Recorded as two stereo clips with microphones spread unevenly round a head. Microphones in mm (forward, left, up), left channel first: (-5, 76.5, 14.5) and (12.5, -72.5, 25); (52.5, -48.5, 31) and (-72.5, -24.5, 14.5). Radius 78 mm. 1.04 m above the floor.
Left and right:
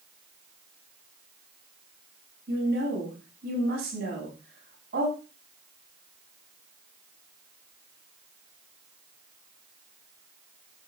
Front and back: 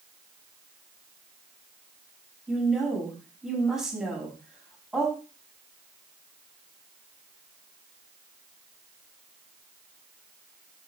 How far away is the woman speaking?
About 7 m.